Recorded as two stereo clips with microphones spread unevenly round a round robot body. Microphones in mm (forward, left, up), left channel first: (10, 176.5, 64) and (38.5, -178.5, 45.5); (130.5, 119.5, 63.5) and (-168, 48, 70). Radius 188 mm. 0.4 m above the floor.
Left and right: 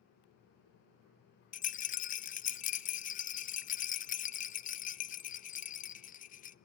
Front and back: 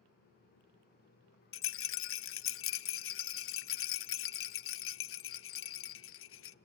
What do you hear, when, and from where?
1.5 s a rattle: 30° left, 0.6 m